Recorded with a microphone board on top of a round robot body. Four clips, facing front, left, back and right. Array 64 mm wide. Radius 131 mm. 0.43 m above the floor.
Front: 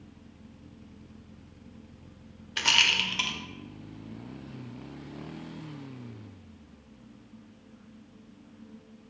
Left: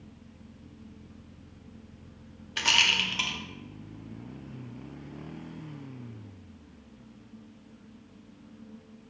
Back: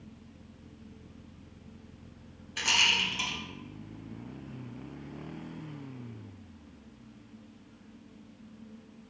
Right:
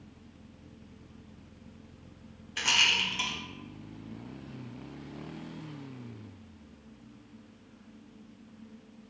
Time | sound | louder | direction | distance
2.6 | a rattle | left 2 dB, front 2 dB | 30° left | 0.8 m